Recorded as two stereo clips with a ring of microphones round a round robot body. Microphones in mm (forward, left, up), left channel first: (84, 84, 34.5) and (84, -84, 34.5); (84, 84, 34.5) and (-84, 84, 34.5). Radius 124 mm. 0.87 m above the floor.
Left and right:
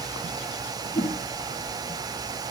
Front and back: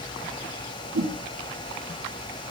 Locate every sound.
0.9 s a whoosh: 165° left, 4.5 m